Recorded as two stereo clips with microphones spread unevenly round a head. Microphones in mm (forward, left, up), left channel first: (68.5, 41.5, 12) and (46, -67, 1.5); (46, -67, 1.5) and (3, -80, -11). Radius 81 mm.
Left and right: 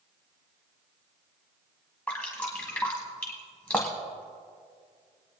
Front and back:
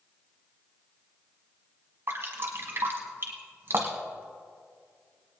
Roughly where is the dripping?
Behind.